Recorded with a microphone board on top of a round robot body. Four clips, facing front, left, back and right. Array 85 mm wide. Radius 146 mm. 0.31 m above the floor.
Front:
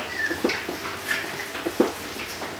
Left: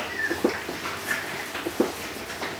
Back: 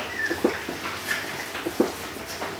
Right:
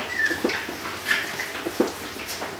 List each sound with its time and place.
Only background noise.